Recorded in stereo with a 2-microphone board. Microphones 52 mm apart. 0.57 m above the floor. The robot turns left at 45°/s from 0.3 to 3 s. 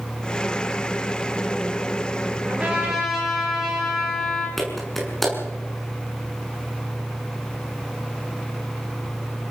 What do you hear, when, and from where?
2.5 s a trumpet: 30° right (ahead or behind), 9.5 m; by 4.5 s 5° right (ahead or behind), 9.5 m
4.6 s a clap: centre (ahead or behind), 6 m